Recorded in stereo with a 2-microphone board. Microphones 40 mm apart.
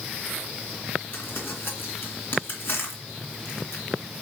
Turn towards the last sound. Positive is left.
turn(degrees=55)  # may be behind; listen again after turning